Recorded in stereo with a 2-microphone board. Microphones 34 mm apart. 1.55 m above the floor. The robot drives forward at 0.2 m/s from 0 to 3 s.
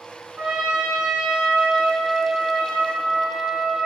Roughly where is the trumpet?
Right.